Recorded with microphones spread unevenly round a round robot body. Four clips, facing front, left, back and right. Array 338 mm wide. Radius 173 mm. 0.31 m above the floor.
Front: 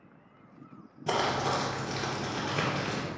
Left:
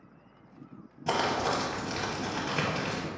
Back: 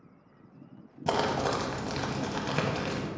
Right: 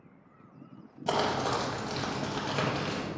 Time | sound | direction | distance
1.1 | crumpling | straight behind | 0.5 m